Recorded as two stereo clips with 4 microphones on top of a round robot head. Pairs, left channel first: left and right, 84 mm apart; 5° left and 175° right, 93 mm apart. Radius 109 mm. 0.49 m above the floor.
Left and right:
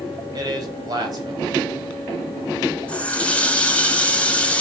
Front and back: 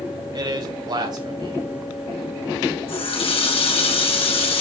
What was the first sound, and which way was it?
A man speaking, 135° right.